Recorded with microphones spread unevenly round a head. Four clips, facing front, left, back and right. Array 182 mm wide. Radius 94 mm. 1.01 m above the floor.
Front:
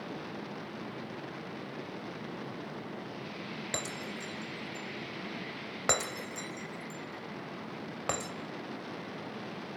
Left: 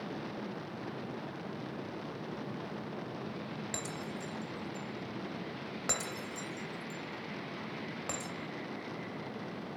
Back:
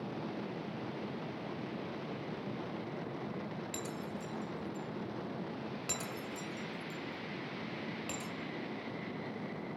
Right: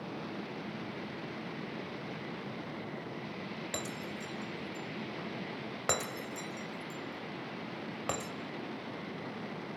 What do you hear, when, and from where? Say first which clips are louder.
3.7 s breaking glass: even, front 2 dB; 25° right, 1.8 m